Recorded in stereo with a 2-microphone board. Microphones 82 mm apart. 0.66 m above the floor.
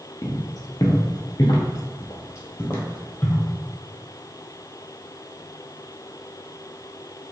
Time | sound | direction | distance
0.2 | footsteps | 45° left (ahead or behind) | 1.0 m